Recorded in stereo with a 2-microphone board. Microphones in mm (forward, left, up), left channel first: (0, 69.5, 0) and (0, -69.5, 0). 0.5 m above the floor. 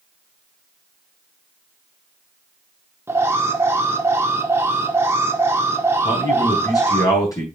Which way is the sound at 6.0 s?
25° left (ahead or behind).